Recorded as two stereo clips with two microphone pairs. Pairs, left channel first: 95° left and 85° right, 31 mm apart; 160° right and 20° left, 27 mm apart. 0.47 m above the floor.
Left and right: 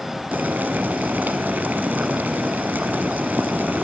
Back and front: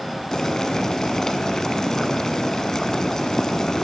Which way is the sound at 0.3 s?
95° right.